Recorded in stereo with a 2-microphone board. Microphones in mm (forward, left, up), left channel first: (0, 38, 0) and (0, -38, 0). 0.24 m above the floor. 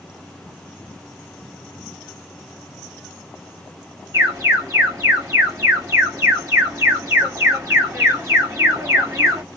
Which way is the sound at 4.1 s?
40° right (ahead or behind).